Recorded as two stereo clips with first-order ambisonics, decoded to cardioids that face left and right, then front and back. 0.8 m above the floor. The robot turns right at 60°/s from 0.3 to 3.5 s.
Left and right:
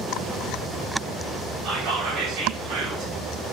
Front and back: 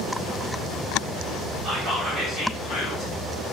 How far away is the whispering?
About 2 m.